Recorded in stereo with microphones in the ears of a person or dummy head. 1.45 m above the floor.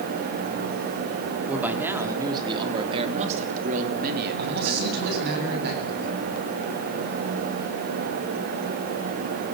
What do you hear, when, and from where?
1.5 s a man speaking: 10° right (ahead or behind), 3.5 m; by 5.4 s 70° right (ahead or behind), 4 m
4.4 s a man speaking: 55° right (ahead or behind), 8.5 m